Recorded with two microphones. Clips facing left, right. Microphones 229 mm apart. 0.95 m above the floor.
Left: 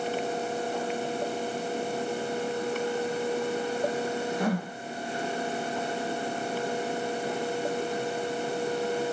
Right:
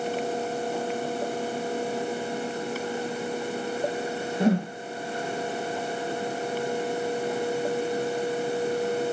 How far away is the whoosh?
About 0.9 m.